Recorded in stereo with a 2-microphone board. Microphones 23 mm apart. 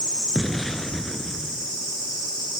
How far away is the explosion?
About 2 m.